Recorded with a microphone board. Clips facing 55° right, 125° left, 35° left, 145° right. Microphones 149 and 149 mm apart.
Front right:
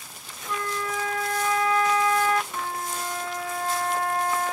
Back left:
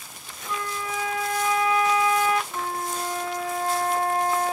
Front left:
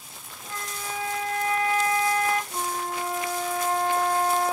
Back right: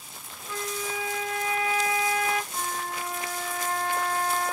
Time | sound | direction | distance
0.5 | a flute | 50° left | 1.4 m
2.5 | a flute | 75° left | 0.9 m